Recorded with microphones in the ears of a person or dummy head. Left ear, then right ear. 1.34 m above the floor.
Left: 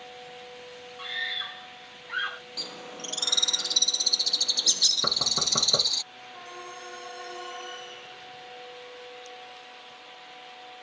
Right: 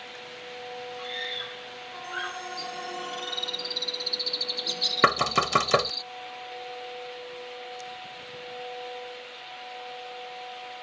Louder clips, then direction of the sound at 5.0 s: Right 3 dB; 70° right (ahead or behind).